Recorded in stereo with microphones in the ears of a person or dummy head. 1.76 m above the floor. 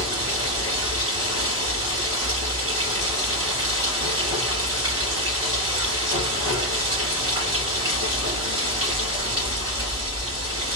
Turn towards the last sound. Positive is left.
turn(degrees=-15)  # may be behind; listen again after turning